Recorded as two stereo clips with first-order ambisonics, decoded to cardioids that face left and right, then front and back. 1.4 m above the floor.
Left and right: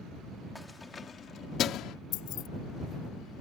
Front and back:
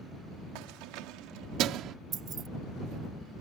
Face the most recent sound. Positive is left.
turn(degrees=125)